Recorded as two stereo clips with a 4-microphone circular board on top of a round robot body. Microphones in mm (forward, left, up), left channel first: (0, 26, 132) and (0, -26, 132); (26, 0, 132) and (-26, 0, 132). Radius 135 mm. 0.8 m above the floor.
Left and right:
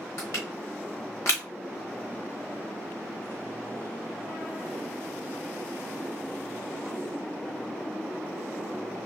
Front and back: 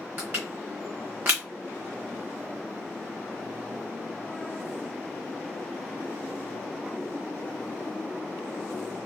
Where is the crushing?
125° left, 0.6 m.